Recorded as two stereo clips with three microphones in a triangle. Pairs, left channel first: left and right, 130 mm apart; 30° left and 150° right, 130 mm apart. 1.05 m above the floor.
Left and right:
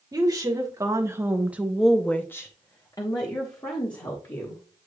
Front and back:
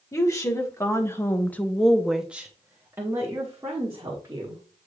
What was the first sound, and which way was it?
A woman speaking, 35° right.